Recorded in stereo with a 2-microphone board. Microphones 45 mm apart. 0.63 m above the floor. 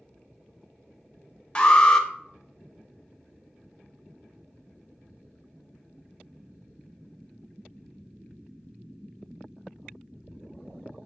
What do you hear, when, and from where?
1.6 s an alarm: 20° left (ahead or behind), 0.9 m